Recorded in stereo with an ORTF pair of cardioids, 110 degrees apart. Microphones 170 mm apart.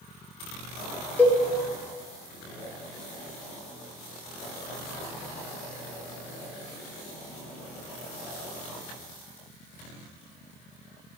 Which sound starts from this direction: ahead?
A cowbell, at 1.2 s.